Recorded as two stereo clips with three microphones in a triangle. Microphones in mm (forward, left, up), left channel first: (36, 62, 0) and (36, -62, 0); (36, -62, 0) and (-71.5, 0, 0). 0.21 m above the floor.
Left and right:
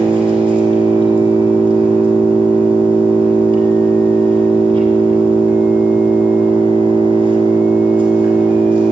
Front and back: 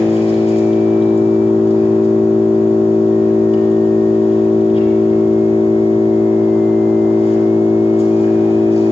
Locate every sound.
0.0 s an engine running: 50° right, 1.7 m